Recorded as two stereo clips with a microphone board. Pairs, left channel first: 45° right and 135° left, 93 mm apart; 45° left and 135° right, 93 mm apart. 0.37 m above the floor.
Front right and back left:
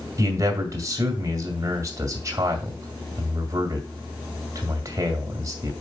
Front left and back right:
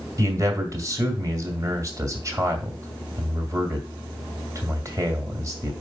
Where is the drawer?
No drawer in this recording.